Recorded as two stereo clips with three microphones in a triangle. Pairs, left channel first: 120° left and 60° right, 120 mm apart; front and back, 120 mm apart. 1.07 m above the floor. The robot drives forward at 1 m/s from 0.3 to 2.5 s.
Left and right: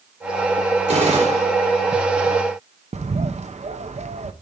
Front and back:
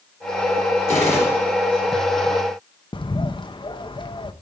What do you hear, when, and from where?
0.9 s a gunshot: 70° right, 4.5 m; by 1.5 s 75° right, 4.5 m
2.9 s a bird: 45° right, 0.7 m